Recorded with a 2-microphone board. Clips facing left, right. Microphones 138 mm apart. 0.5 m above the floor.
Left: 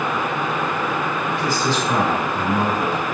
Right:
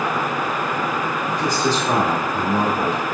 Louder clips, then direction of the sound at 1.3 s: Right 2 dB; 40° right (ahead or behind).